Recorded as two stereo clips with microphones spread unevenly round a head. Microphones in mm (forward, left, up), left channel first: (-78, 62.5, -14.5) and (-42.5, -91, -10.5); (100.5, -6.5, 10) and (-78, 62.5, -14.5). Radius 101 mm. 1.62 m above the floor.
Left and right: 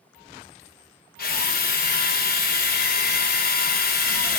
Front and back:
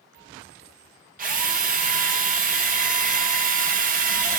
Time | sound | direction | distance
1.2 | a drill | 115° left | 2.5 m